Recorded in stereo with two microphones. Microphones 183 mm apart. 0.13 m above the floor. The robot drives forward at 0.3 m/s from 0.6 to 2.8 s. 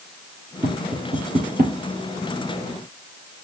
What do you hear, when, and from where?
0.6 s tapping: 45° right (ahead or behind), 2.5 m; by 1.8 s 50° right (ahead or behind), 2.5 m